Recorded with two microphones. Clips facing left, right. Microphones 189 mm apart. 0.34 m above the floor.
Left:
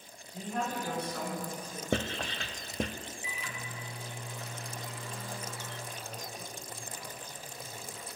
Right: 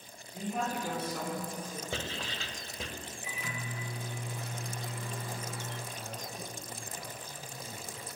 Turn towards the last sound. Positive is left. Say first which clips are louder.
# right 1 dB
turn(degrees=-60)  # may be behind; listen again after turning